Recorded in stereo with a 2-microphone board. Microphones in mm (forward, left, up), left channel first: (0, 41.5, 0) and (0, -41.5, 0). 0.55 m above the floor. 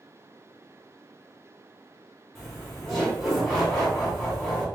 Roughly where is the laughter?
Centre.